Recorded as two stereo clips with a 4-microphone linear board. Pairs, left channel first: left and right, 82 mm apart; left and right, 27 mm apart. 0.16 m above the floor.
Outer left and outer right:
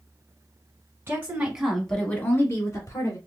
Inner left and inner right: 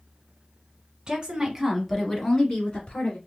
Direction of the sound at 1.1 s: 30° right (ahead or behind).